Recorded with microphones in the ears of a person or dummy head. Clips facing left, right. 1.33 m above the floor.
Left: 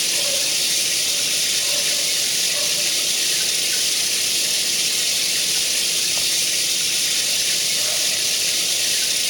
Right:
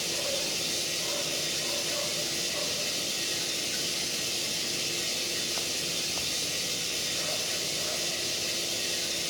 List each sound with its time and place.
0.0 s running water: 85° left, 1.5 m